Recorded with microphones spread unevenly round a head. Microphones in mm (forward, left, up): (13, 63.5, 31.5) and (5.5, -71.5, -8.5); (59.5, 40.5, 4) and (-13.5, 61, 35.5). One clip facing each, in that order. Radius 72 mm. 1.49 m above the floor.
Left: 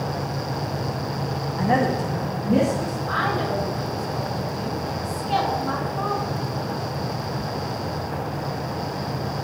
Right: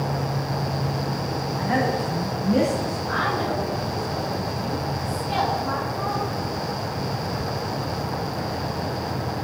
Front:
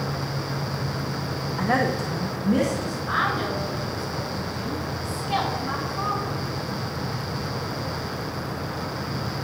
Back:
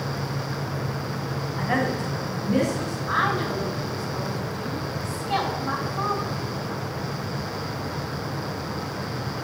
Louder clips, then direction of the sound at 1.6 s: Left 3 dB, front 2 dB; 50° left.